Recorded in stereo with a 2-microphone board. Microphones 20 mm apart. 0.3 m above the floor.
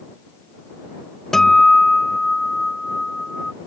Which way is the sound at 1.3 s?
25° left (ahead or behind).